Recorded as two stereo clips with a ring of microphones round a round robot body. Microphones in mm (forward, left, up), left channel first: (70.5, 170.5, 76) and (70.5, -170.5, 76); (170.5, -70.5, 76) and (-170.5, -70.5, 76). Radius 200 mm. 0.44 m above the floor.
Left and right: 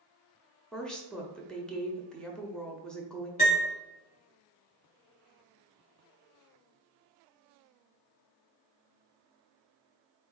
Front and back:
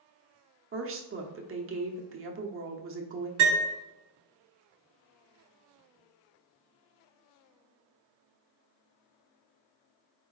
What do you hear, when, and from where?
0.7 s a woman speaking: 175° left, 0.9 m
3.4 s a piano: 150° left, 1.6 m